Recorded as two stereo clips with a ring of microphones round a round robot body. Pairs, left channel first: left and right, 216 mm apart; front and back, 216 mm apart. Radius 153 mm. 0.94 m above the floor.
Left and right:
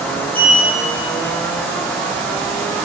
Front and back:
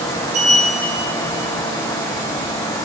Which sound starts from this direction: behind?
A sliding door, at 0.3 s.